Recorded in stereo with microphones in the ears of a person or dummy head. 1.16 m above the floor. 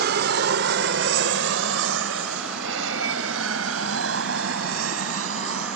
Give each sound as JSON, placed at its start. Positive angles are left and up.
{"t": 0.0, "sound": "an aircraft", "side_deg": -60}